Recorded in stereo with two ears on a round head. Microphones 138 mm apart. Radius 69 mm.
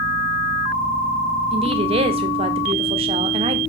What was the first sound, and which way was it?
A woman speaking, 35° right (ahead or behind).